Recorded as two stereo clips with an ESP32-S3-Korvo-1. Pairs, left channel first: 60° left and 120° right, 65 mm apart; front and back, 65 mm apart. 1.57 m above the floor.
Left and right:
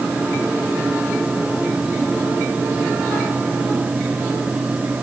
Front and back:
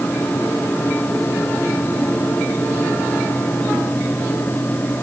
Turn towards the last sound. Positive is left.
No sound to turn to.